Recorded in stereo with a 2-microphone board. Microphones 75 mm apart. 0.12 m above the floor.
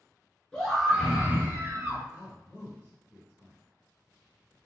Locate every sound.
0.5 s a scream: 10° left (ahead or behind), 1.6 m; by 2.0 s 45° right (ahead or behind), 1.9 m
2.1 s a man speaking: 20° left (ahead or behind), 1.4 m